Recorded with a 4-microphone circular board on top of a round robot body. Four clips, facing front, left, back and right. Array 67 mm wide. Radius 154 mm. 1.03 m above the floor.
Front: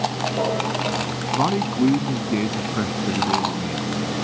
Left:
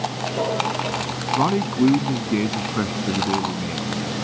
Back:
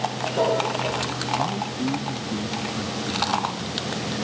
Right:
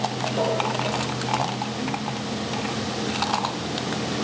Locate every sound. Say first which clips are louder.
1.4 s a man speaking: left 8 dB, front 10 dB; 55° left